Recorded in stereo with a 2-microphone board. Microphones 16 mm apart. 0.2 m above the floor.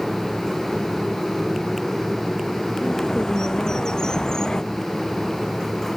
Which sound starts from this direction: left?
A bird, at 2.8 s.